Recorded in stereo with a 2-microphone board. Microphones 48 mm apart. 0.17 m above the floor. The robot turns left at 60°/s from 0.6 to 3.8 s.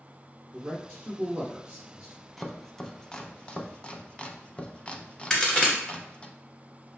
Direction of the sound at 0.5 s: 25° right (ahead or behind).